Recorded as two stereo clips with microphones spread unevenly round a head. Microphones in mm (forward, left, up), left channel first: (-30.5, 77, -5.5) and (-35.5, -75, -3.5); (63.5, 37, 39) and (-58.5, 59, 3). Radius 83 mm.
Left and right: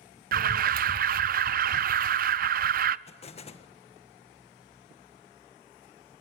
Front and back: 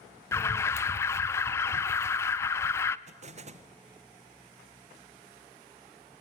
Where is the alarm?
90° right, 0.5 m.